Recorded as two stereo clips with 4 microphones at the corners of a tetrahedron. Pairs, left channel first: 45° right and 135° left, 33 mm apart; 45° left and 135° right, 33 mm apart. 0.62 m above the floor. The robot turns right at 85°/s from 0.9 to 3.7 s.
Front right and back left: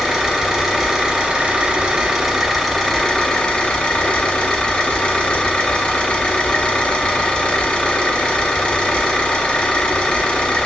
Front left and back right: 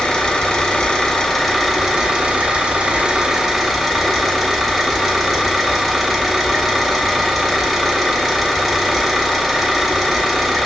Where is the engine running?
75° left, 0.8 m; by 10.7 s 45° right, 0.8 m.